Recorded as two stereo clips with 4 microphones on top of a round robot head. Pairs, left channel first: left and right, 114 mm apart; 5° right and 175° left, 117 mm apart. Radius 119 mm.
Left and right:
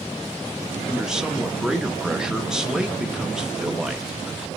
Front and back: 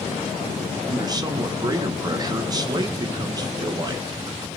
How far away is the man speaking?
About 0.7 m.